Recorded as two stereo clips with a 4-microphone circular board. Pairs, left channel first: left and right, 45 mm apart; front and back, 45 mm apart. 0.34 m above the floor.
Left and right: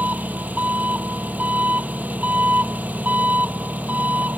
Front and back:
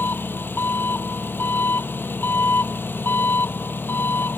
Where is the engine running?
40° right.